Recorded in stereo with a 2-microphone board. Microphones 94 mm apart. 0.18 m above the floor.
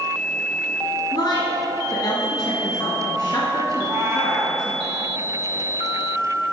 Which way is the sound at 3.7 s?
30° right (ahead or behind).